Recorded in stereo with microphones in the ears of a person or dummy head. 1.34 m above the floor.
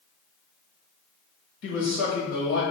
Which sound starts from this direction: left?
A man speaking, at 1.6 s.